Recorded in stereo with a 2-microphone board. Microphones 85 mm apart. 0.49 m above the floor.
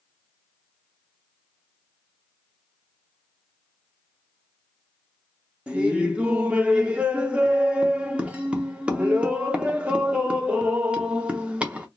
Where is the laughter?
15° right (ahead or behind), 0.7 m.